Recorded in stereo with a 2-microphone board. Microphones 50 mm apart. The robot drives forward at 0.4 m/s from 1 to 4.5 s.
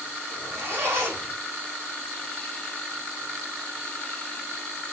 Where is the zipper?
50° right (ahead or behind), 3 m.